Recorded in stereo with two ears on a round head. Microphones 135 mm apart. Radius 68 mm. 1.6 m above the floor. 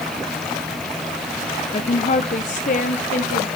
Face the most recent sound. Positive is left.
turn(degrees=55)  # may be behind; listen again after turning